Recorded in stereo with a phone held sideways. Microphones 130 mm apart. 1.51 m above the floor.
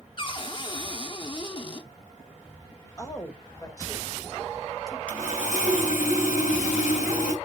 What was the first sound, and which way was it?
A cupboard door, 35° left (ahead or behind).